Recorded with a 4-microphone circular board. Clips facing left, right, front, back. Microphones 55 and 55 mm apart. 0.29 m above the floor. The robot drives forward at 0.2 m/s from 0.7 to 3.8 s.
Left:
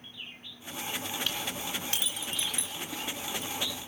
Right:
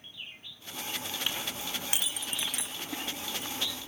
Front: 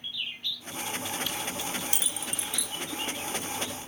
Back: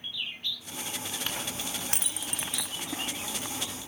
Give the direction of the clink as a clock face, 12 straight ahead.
5 o'clock.